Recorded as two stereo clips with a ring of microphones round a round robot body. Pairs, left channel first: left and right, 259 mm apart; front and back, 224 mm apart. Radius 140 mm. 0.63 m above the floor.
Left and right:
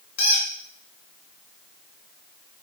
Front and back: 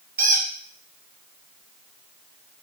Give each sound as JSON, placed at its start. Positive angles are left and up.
{"t": 0.2, "sound": "a squeak", "azimuth_deg": 125, "distance_m": 1.5}